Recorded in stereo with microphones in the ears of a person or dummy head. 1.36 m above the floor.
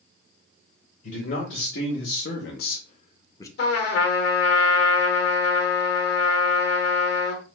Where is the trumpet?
55° left (ahead or behind), 1.1 m.